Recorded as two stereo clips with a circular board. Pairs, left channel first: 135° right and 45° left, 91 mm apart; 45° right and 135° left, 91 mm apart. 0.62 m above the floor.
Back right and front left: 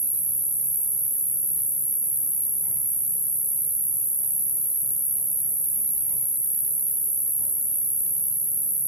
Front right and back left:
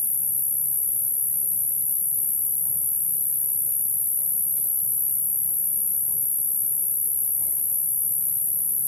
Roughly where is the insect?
Ahead.